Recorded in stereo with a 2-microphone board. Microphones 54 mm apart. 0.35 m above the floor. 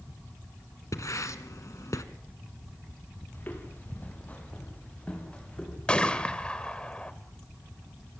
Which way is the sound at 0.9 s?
75° left (ahead or behind).